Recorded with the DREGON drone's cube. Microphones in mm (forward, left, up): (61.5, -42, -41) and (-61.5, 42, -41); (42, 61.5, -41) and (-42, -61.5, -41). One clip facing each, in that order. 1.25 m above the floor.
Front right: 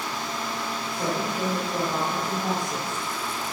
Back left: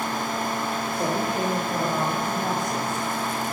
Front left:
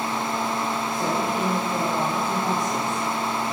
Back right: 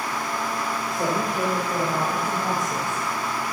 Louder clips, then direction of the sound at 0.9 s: Back left 2 dB, back right 2 dB; 145° right.